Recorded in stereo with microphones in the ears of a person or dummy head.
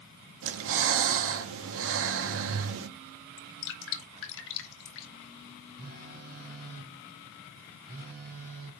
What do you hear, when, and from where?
0.4 s breathing: 55° right (ahead or behind), 0.7 m
3.4 s dripping: 60° left (ahead or behind), 1.1 m
5.8 s a phone buzzing: 45° right (ahead or behind), 2.5 m